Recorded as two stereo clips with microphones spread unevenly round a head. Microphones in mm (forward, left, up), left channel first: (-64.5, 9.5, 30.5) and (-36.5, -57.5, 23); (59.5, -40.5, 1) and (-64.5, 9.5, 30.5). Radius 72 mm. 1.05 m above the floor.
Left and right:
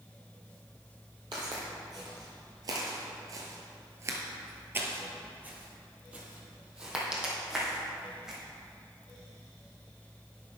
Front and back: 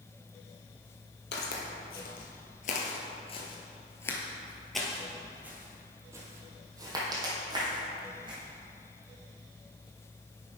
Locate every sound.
1.3 s footsteps: 10° right, 1.8 m; by 8.4 s 155° right, 3 m